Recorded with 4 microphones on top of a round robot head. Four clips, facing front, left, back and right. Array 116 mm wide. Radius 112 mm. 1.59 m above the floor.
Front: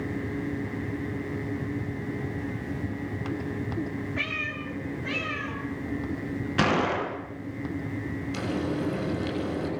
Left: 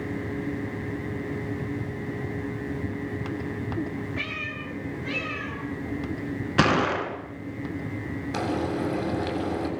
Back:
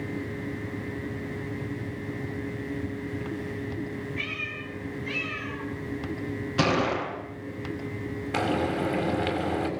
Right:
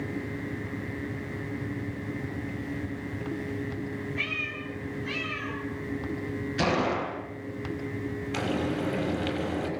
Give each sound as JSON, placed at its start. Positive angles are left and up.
{"t": 4.2, "sound": "a cat meowing", "azimuth_deg": 35, "distance_m": 9.5}
{"t": 6.6, "sound": "a gunshot", "azimuth_deg": 100, "distance_m": 7.0}
{"t": 8.3, "sound": "frying", "azimuth_deg": 145, "distance_m": 7.0}